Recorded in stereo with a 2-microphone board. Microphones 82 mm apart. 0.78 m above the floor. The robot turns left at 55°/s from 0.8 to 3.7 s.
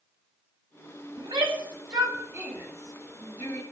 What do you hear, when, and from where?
1.2 s a shout: 80° right, 4.5 m; by 3.6 s 35° left (ahead or behind), 4.5 m